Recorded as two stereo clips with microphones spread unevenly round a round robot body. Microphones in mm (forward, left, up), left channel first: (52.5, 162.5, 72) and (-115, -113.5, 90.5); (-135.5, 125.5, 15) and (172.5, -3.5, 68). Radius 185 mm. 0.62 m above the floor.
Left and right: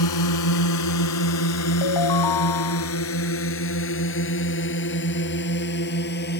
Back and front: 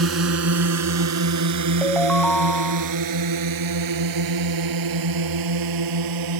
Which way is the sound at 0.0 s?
25° left.